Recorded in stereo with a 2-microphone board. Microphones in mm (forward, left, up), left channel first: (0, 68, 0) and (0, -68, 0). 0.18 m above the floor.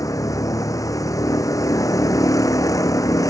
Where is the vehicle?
25° left (ahead or behind).